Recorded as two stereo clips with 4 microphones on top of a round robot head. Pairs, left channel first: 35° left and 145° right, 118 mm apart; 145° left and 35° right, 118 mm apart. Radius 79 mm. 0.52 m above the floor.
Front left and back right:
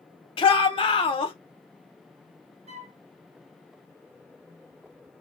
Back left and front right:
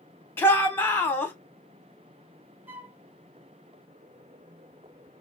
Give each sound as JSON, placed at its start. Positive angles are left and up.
{"t": 0.4, "sound": "a shout", "azimuth_deg": 75, "distance_m": 1.4}
{"t": 2.7, "sound": "a flute", "azimuth_deg": -110, "distance_m": 0.7}